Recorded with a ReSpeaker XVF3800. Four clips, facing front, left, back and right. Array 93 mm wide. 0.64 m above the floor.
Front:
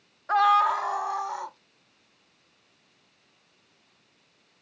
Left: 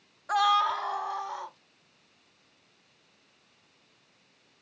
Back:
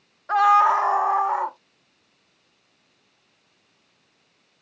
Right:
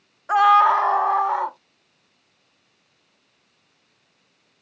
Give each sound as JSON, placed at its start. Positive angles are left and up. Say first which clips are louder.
{"t": 0.3, "sound": "a scream", "louder": "right 10 dB, back 4 dB", "azimuth_deg": -90}